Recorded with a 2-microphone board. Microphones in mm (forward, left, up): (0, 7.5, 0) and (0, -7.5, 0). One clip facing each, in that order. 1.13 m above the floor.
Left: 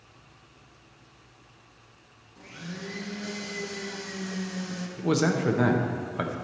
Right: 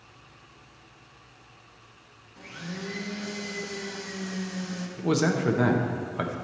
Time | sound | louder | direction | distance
2.4 | a blender | right 2 dB | 25° right (ahead or behind) | 0.9 m
5.0 | a man speaking | even | 15° right (ahead or behind) | 0.7 m